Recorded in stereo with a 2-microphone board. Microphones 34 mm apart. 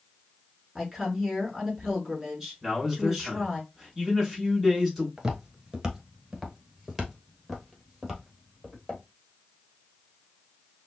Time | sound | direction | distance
0.8 | a woman speaking | 10° right (ahead or behind) | 4 m
2.6 | a man speaking | 5° right (ahead or behind) | 4 m
5.2 | footsteps | 20° right (ahead or behind) | 1.2 m